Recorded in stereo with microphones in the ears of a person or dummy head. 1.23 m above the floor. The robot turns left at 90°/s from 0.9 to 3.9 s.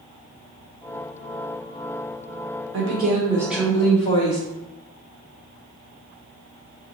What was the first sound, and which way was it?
A woman speaking, 100° right.